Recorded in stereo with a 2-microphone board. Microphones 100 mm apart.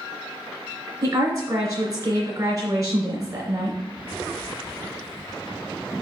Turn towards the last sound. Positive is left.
turn(degrees=-35)  # may be behind; listen again after turning